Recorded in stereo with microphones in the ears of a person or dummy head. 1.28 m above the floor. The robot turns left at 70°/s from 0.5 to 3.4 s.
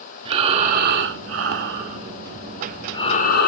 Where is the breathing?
35° right, 2 m; by 3.5 s 120° left, 2 m.